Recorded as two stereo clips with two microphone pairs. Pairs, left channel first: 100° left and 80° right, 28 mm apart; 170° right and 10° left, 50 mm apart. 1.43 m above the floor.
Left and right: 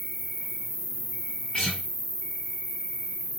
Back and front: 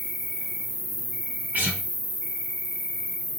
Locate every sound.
0.0 s an insect: 105° left, 0.8 m
1.5 s a guitar: 50° left, 1.1 m